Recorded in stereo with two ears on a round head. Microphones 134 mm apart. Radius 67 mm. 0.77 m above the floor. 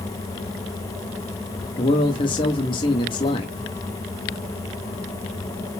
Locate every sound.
1.8 s a man speaking: 35° left (ahead or behind), 1.3 m